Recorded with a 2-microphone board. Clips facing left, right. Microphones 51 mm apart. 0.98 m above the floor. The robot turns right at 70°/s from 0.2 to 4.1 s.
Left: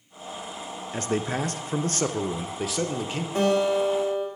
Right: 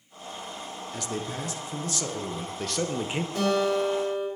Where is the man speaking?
50° left, 0.5 m; by 3.2 s 150° right, 0.5 m.